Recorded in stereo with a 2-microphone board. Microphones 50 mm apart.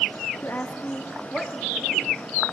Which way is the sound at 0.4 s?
55° left (ahead or behind).